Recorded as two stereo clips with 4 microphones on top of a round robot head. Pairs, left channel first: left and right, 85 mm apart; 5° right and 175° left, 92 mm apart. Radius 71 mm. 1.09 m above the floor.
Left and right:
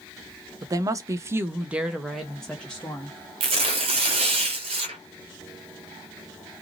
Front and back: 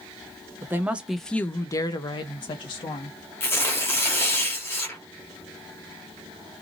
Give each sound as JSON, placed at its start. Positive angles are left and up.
{"t": 0.6, "sound": "a woman speaking", "azimuth_deg": -130, "distance_m": 0.7}
{"t": 3.4, "sound": "tearing paper", "azimuth_deg": -80, "distance_m": 0.8}